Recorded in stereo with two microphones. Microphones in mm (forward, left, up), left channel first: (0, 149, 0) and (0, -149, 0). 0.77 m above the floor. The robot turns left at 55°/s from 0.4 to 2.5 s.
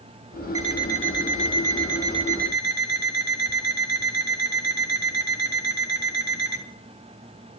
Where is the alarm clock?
70° left, 3 m; by 6.6 s 35° right, 3 m.